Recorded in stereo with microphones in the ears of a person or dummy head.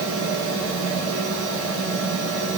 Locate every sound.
0.0 s a fan: 70° right (ahead or behind), 5.5 m